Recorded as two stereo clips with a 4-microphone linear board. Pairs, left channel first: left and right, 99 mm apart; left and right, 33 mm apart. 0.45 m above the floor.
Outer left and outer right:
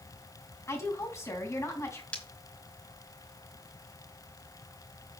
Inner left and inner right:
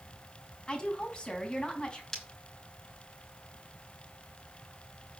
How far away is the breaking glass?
About 3.5 m.